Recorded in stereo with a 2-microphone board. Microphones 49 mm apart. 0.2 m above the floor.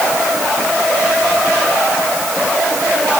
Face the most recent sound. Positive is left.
No sound to turn to.